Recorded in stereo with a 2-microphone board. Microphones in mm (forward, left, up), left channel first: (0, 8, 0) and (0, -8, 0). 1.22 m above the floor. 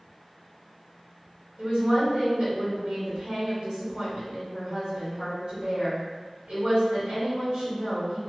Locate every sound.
1.6 s a woman speaking: 65° right (ahead or behind), 1.9 m